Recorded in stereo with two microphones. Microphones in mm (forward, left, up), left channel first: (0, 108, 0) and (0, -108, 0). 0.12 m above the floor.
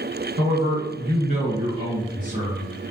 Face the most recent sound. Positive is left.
turn(degrees=-20)  # may be behind; listen again after turning